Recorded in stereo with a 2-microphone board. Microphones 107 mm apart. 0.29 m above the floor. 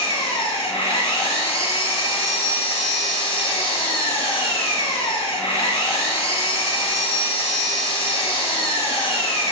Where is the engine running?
60° left (ahead or behind), 1.6 m.